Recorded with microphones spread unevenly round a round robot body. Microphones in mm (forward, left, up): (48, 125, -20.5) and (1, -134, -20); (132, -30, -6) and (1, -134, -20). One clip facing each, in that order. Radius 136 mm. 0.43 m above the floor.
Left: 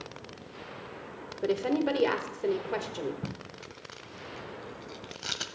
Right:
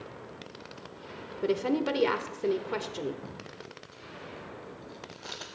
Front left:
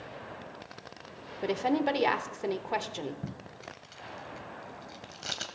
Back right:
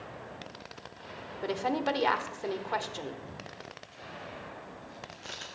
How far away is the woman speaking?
About 0.9 m.